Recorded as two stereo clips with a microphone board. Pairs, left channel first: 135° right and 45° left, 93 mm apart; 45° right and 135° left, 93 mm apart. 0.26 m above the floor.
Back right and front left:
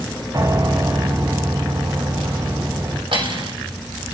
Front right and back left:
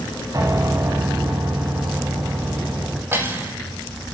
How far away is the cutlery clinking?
About 5.5 m.